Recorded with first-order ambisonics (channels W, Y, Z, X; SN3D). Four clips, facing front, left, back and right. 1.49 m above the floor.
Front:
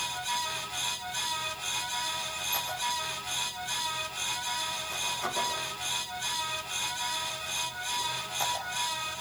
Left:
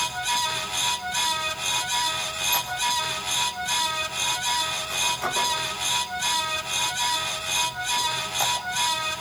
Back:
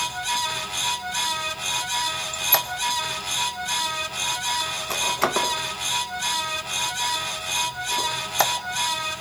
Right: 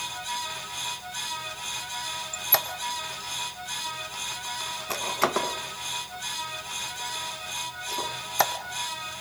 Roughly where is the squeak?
Behind right.